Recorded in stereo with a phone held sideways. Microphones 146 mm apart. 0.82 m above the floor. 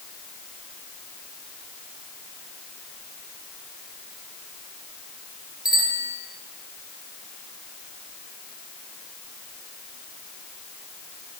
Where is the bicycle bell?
75° left (ahead or behind), 9.5 m.